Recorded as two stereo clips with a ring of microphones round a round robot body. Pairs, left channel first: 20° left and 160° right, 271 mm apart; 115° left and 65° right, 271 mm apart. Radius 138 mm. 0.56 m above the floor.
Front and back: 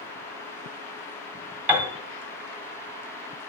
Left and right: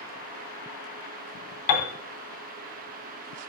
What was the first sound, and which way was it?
A piano, 120° left.